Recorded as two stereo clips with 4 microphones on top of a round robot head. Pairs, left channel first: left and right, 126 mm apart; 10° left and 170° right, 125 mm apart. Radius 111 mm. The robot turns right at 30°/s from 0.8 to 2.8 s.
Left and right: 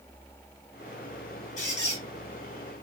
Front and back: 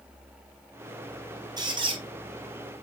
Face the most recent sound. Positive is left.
turn(degrees=170)